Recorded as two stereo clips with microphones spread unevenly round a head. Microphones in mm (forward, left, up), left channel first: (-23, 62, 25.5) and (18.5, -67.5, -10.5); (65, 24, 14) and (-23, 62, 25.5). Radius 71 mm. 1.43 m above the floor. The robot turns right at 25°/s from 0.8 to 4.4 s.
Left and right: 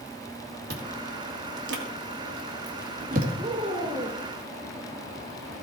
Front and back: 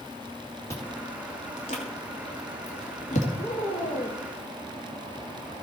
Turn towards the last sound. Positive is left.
turn(degrees=5)